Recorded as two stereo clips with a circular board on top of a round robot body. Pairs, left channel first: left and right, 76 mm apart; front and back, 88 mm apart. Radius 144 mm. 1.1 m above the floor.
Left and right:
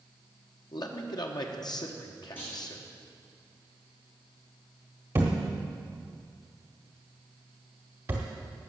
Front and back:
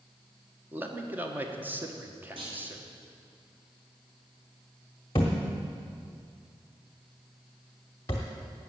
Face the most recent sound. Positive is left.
turn(degrees=-50)